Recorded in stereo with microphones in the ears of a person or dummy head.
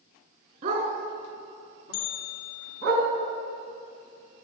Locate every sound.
0.6 s a dog barking: 50° right (ahead or behind), 3.5 m; by 2.9 s 60° right (ahead or behind), 2.5 m
1.9 s a bell: 85° left, 1.8 m